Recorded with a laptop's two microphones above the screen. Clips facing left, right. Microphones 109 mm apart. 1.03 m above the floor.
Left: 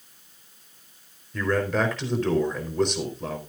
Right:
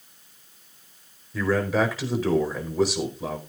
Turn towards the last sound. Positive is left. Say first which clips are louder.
# right 1 dB
turn(degrees=-5)  # may be behind; listen again after turning